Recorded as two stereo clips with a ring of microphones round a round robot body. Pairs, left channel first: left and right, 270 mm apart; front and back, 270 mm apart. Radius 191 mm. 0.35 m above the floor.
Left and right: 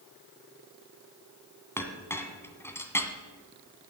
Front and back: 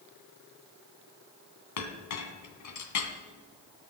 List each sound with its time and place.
1.8 s a clink: 10° left, 2 m